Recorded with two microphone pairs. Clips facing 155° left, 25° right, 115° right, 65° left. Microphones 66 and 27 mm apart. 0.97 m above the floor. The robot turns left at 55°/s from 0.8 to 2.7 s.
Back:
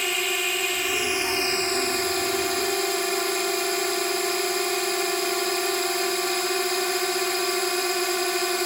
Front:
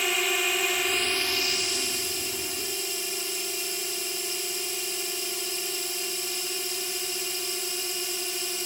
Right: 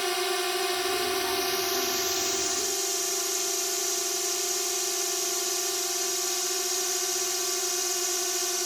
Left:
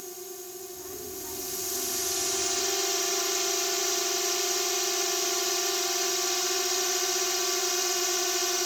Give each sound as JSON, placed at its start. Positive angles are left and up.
{"t": 0.0, "sound": "a drone", "azimuth_deg": -115}